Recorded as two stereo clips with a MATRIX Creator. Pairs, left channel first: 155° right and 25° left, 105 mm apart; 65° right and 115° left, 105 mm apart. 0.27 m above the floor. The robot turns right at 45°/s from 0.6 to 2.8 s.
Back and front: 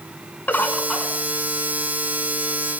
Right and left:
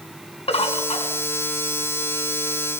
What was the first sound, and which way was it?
A bird, 85° right.